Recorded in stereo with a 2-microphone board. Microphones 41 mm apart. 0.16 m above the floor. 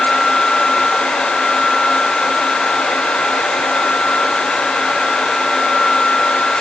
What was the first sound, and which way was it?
Only background noise.